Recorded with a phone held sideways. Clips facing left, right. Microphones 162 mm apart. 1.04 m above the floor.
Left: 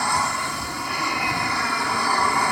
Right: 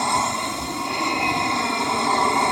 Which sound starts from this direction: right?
An aircraft, at 0.0 s.